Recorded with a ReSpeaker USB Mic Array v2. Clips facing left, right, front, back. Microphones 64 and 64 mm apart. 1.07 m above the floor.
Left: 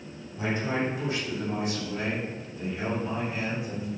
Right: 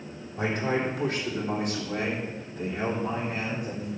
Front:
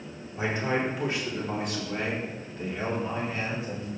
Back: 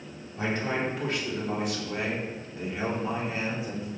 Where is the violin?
No violin in this recording.